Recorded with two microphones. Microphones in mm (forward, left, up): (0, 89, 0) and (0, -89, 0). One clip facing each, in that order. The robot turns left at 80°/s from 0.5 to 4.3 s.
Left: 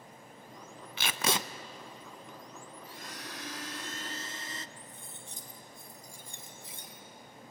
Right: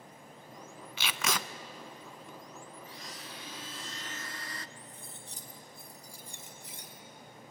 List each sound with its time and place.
1.0 s tape being pulled: 60° left, 0.6 m; by 1.4 s 20° left, 0.6 m
2.9 s a blender: 140° left, 0.6 m; by 4.7 s 25° left, 0.6 m
4.8 s cutlery clinking: 35° right (ahead or behind), 2.5 m